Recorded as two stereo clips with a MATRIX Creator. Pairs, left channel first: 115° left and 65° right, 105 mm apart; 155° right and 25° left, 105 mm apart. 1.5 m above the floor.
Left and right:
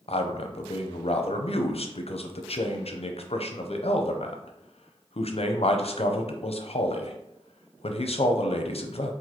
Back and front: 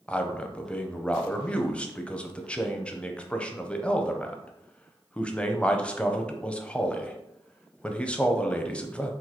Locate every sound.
0.1 s a man speaking: 125° left, 0.5 m